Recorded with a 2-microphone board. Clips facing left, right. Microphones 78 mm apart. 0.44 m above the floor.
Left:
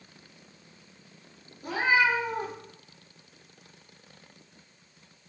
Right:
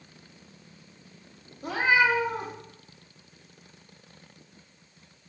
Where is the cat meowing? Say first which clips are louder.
Right 1 dB; 75° right (ahead or behind), 0.9 m.